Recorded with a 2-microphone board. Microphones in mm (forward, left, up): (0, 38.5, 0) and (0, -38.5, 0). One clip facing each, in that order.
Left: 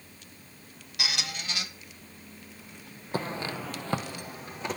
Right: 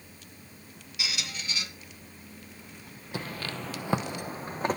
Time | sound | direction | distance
1.0 | a squeak | 65° left (ahead or behind) | 1.3 m
3.1 | footsteps | 40° left (ahead or behind) | 0.7 m